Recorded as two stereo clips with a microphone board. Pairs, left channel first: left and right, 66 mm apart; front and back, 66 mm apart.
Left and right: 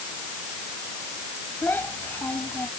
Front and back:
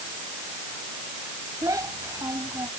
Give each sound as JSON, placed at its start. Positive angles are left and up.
{"t": 1.6, "sound": "a child speaking", "azimuth_deg": 150}